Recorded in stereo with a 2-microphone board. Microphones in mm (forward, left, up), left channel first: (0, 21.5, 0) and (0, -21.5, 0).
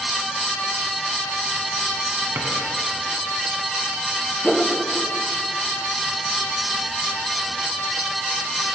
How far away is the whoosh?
About 0.6 m.